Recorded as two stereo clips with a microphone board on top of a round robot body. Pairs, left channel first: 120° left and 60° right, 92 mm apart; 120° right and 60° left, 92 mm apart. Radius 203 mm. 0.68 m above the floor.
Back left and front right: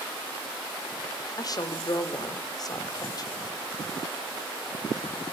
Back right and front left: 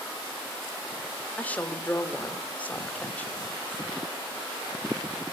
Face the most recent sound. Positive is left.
turn(degrees=165)